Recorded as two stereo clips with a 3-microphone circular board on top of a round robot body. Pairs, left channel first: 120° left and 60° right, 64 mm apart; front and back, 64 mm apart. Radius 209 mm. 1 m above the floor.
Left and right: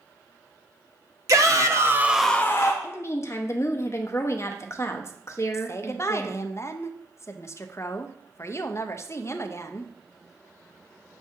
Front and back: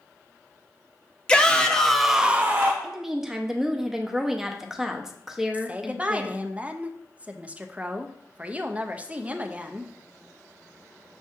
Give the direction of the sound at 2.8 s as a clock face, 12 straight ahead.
9 o'clock.